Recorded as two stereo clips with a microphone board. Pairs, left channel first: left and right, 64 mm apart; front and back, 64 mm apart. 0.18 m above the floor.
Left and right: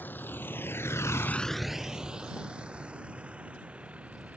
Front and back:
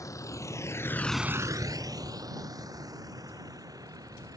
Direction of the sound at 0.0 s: 30° left.